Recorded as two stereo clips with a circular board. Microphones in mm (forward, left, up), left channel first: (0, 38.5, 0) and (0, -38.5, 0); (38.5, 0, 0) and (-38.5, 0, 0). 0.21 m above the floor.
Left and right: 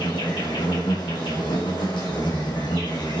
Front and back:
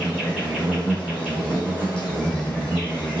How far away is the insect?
About 3 m.